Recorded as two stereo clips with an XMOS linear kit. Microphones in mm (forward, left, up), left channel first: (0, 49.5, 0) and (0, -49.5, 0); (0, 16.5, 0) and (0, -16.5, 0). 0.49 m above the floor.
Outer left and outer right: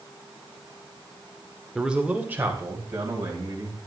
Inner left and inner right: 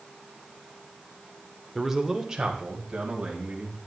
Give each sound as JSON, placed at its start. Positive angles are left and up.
{"t": 1.8, "sound": "a man speaking", "side_deg": -5, "distance_m": 1.0}